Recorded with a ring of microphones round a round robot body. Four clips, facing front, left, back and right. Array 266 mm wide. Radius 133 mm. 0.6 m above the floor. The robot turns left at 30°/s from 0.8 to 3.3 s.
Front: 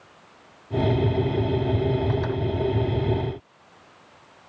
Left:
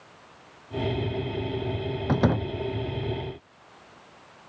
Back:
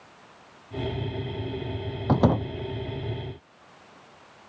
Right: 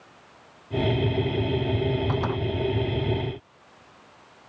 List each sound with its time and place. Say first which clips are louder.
2.1 s a door slam: left 2 dB, back 3 dB; 155° left; by 2.5 s 140° left